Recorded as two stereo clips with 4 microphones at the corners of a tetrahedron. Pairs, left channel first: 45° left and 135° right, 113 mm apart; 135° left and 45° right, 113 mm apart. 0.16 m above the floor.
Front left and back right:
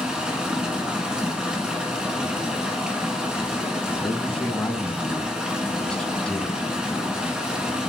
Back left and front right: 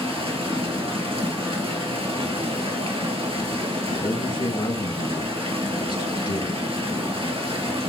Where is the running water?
55° right, 1.9 m.